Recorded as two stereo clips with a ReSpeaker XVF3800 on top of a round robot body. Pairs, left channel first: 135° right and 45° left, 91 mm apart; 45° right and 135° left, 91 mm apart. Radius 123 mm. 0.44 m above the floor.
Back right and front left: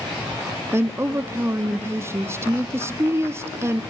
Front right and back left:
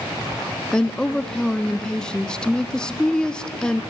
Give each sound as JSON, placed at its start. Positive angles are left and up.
{"t": 0.7, "sound": "a woman speaking", "azimuth_deg": 30, "distance_m": 0.8}